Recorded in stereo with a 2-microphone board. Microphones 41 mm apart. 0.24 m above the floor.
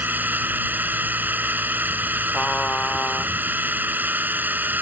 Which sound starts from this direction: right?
A drone, at 0.0 s.